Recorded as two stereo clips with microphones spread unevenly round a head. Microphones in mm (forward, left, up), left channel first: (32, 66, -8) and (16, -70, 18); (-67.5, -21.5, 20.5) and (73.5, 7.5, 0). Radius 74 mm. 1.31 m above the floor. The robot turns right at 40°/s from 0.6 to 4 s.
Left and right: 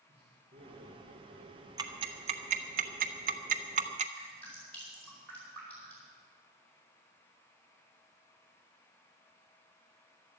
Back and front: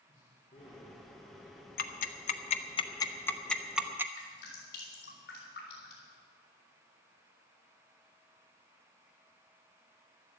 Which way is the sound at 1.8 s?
155° right.